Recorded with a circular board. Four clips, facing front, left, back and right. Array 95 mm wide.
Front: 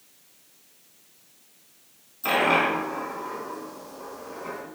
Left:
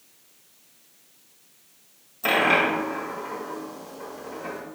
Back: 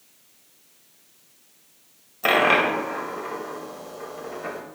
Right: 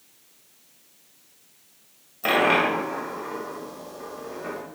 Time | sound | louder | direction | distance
2.2 | a dropped coin | right 1 dB, back 3 dB | 170° right | 1.4 m